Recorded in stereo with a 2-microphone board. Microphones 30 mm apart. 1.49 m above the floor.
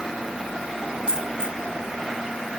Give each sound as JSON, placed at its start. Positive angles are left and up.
{"t": 1.1, "sound": "a dropped coin", "side_deg": -35, "distance_m": 1.5}